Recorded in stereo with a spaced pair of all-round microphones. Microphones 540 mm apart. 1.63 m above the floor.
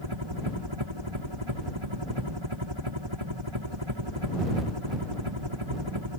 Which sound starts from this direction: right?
A helicopter, at 0.0 s.